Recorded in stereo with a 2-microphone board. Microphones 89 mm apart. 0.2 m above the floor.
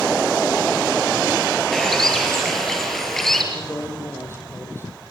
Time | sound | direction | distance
1.7 | a bird | 5° left (ahead or behind) | 5 m
3.5 | a man speaking | 30° left (ahead or behind) | 7.5 m